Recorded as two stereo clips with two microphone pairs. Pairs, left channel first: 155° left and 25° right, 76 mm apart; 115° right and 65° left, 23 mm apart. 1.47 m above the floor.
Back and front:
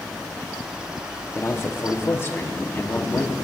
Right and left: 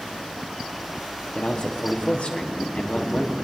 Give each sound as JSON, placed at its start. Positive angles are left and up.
{"t": 1.4, "sound": "a man speaking", "azimuth_deg": -145, "distance_m": 1.0}